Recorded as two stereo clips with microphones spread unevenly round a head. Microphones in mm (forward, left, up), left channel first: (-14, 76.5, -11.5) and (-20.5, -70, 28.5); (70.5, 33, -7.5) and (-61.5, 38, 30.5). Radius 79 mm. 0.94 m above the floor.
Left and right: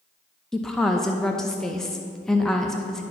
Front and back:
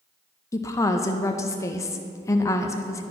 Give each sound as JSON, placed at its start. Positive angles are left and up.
{"t": 0.5, "sound": "a woman speaking", "azimuth_deg": 20, "distance_m": 0.5}